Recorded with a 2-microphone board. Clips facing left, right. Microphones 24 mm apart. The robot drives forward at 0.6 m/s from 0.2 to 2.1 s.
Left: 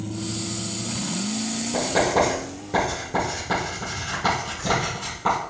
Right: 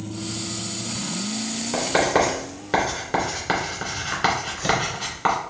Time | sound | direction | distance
1.7 | writing | 75° right (ahead or behind) | 2.5 m